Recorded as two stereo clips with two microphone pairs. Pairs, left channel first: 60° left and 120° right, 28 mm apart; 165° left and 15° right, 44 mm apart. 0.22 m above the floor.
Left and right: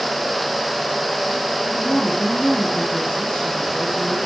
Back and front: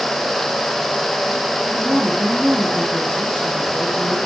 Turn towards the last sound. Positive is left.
turn(degrees=75)